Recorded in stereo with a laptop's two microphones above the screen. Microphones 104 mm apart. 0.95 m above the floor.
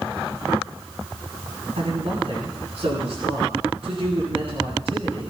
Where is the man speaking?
75° right (ahead or behind), 9 m.